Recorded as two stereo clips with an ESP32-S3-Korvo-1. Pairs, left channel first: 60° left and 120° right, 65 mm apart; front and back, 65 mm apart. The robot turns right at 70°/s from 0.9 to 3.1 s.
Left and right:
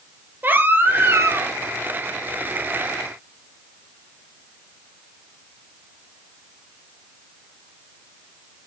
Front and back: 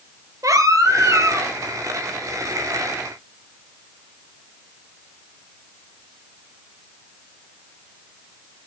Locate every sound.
0.4 s a baby crying: 175° right, 2 m; by 1.5 s 130° right, 2 m